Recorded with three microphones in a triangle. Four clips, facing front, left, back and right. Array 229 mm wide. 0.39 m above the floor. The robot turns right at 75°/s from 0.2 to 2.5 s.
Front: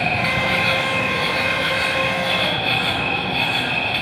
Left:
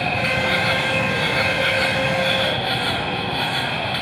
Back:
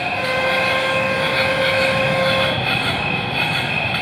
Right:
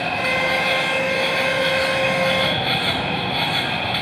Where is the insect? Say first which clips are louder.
Even, back 1 dB; 45° left, 4.5 m; by 4.0 s 145° right, 4.5 m.